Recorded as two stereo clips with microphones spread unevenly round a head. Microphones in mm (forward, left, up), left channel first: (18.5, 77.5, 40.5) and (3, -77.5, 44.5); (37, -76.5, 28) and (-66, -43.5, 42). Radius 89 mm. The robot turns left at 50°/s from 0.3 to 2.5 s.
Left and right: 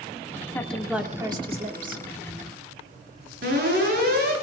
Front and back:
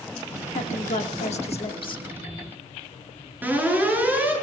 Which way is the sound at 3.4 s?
125° right.